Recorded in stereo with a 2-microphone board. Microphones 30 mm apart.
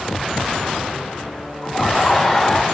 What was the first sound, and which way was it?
Laughter, centre (ahead or behind).